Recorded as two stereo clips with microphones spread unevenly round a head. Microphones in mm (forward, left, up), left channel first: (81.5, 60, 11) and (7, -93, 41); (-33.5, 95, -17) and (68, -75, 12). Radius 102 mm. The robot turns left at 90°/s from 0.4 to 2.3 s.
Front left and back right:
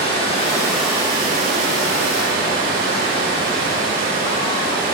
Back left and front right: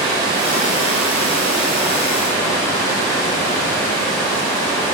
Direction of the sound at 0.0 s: 10° left.